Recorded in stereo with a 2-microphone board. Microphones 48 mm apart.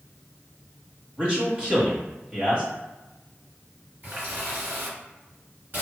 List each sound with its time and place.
1.2 s a man speaking: 30° right (ahead or behind), 1.2 m
4.0 s a running tap: 45° right (ahead or behind), 1.6 m